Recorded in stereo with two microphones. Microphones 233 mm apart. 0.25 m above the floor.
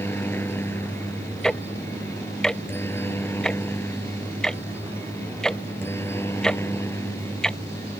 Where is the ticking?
5° left (ahead or behind).